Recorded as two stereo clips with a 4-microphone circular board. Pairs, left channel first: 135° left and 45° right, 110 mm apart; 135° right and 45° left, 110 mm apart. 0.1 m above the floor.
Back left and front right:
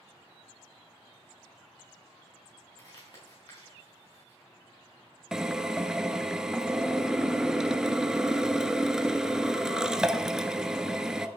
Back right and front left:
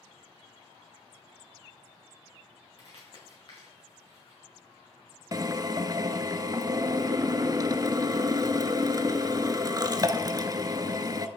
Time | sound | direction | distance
2.8 | crumpling | straight behind | 5.5 m
5.3 | a drill | 35° left | 0.7 m